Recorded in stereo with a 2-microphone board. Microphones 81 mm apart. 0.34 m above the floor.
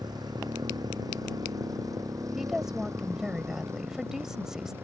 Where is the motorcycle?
60° right (ahead or behind); by 4.8 s 30° right (ahead or behind).